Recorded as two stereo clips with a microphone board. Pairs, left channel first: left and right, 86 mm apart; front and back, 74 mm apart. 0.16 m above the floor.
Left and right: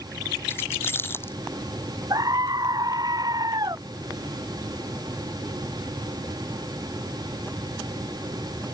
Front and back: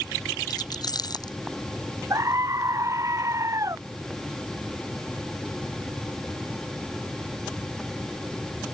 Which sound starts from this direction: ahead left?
Keys jangling, at 0.5 s.